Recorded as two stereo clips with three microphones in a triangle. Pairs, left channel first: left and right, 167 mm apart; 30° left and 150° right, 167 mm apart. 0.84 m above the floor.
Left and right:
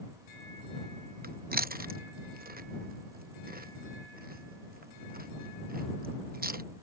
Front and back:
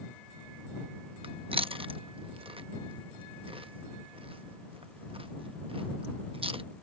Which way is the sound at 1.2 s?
95° right.